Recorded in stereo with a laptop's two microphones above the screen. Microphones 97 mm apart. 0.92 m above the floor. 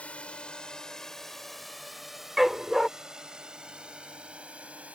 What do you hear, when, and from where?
0.0 s a drone: 15° left (ahead or behind); by 5.0 s 15° right (ahead or behind)
2.4 s a dog barking: 5° right (ahead or behind)